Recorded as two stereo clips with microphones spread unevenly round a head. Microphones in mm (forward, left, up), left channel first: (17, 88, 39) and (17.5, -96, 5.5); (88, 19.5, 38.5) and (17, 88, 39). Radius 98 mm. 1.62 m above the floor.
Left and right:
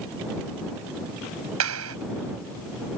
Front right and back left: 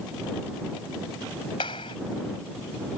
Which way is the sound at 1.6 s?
105° right.